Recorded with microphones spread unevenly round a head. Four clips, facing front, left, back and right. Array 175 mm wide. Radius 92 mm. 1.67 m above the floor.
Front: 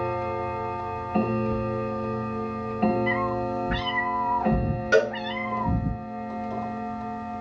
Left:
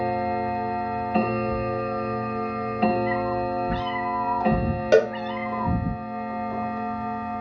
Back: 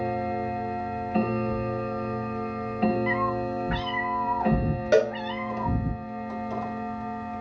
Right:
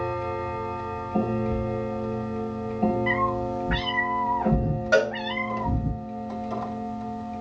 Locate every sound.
3.1 s a cat meowing: 140° right, 1.3 m; by 5.9 s 50° left, 1.1 m
4.9 s a cowbell: 110° left, 0.6 m